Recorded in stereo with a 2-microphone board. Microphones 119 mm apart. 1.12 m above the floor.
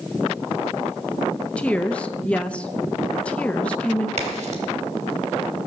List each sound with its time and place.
1.6 s a woman speaking: 10° left (ahead or behind), 0.7 m
4.2 s a crack: 70° right (ahead or behind), 3 m